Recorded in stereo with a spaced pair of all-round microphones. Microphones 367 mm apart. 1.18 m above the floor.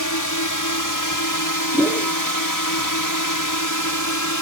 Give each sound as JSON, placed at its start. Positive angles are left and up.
{"t": 0.0, "sound": "a drone", "side_deg": 55}
{"t": 1.7, "sound": "a whoosh", "side_deg": 0}